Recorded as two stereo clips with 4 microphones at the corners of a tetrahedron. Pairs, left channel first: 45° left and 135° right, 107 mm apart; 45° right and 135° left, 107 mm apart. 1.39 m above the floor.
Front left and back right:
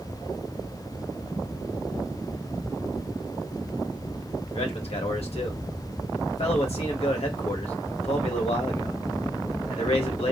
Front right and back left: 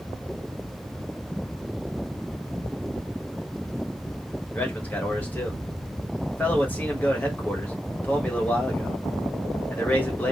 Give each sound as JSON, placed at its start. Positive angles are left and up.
{"t": 4.5, "sound": "a man speaking", "azimuth_deg": 30, "distance_m": 1.5}